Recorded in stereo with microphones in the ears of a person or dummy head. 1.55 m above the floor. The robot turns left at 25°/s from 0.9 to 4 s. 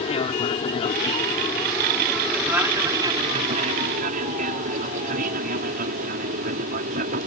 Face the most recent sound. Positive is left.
turn(degrees=-50)  # may be behind; listen again after turning